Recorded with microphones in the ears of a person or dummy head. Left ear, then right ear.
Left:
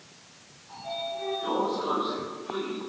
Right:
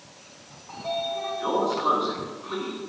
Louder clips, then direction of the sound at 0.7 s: Right 5 dB; 55° right (ahead or behind).